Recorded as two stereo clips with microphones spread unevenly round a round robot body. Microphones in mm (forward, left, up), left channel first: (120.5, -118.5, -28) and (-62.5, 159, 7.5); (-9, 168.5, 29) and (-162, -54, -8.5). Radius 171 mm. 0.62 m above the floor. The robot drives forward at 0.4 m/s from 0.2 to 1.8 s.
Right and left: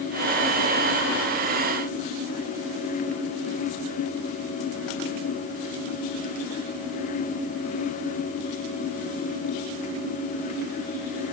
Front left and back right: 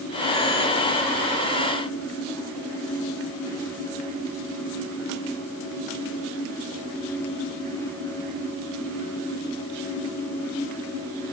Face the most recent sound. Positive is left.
No sound to turn to.